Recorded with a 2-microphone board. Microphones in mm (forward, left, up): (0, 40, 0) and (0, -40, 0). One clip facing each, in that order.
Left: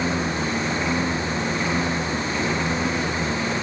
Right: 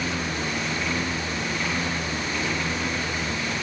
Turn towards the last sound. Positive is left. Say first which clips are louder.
# left 4 dB
turn(degrees=20)  # may be behind; listen again after turning